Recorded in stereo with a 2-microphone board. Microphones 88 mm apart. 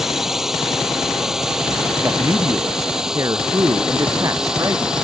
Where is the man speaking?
40° right (ahead or behind).